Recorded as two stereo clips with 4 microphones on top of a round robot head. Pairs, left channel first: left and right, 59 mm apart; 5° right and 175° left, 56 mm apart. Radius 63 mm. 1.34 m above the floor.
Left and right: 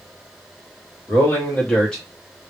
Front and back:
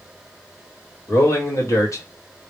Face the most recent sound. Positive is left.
turn(degrees=-10)